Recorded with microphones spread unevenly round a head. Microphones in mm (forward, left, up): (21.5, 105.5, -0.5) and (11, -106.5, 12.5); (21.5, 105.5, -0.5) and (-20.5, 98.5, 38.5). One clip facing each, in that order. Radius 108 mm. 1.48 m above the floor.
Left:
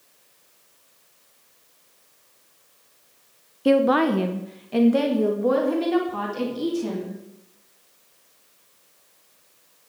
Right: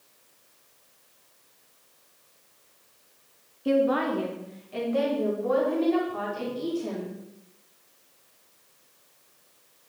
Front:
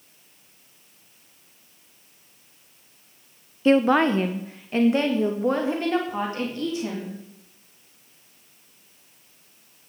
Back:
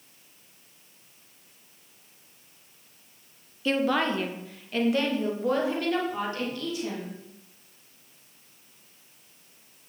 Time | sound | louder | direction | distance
3.6 | a woman speaking | left 5 dB, front 7 dB | 70° left | 0.7 m